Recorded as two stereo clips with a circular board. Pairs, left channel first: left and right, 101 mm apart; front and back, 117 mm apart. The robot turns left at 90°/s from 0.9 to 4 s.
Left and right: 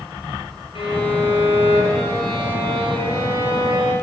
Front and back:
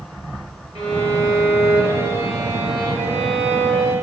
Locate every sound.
0.8 s a violin: 130° left, 5 m; by 3.9 s 145° right, 5 m